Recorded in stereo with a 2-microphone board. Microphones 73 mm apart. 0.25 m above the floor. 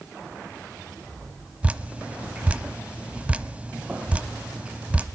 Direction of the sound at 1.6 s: 15° right (ahead or behind).